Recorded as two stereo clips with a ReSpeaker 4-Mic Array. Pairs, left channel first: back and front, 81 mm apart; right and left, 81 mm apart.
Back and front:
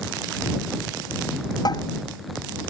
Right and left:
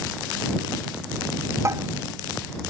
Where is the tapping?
145° left.